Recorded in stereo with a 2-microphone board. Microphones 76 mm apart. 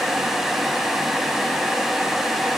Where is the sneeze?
I don't hear a sneeze.